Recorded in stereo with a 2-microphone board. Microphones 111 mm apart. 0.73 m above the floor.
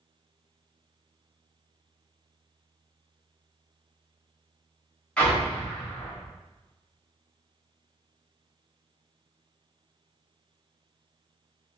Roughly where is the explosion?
Centre.